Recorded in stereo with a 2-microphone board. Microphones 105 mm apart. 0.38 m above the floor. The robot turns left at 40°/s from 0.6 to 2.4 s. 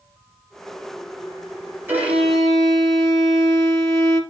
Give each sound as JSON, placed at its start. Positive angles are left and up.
{"t": 1.9, "sound": "a violin", "side_deg": -20, "distance_m": 2.0}